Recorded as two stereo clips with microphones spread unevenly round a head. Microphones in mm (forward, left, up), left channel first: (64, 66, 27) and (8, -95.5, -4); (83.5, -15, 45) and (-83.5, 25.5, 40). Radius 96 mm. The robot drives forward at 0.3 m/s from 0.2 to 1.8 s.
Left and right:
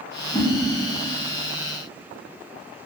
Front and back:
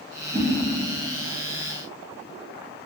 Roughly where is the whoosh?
Left.